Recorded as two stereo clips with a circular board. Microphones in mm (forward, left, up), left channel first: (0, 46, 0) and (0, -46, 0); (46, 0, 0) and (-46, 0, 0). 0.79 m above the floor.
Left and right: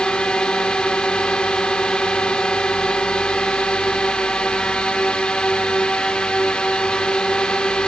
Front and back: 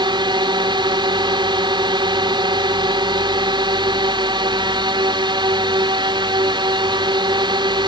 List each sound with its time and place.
0.0 s a drone: 170° left